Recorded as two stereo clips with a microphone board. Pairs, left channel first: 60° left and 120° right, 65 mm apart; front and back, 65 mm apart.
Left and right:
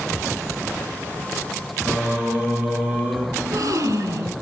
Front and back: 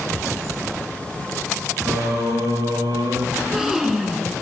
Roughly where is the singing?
Behind.